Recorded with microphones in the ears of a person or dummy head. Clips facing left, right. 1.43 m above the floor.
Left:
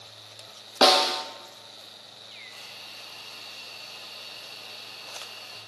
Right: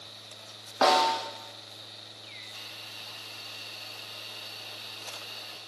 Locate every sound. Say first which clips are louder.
0.8 s a snare drum: left 2 dB; 45° left (ahead or behind), 0.8 m
2.5 s a hiss: left 2 dB; 20° right (ahead or behind), 1.2 m